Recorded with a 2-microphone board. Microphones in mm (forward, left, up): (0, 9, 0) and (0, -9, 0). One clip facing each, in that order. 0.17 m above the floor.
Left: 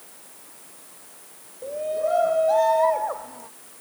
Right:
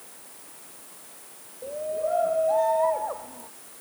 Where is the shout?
50° left (ahead or behind); by 3.5 s 35° left (ahead or behind).